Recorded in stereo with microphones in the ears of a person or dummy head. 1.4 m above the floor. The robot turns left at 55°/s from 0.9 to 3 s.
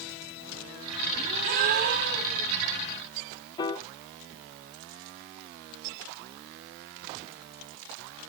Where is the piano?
25° left (ahead or behind), 0.6 m.